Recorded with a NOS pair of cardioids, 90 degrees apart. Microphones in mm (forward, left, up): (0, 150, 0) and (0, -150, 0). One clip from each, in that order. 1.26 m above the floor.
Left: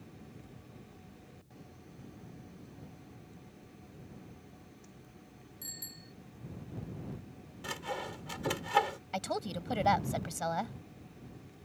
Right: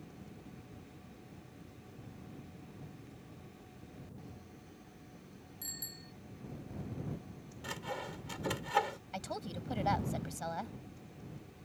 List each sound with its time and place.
5.6 s a bicycle bell: 5° right
7.6 s sawing: 25° left
9.1 s a woman speaking: 45° left